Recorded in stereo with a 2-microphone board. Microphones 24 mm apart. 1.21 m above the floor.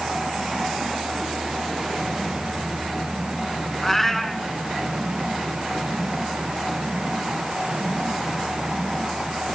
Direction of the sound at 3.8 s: 15° left (ahead or behind).